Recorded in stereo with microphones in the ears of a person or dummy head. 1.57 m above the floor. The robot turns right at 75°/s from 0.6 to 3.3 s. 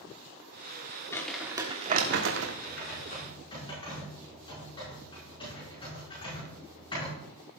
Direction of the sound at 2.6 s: 100° left.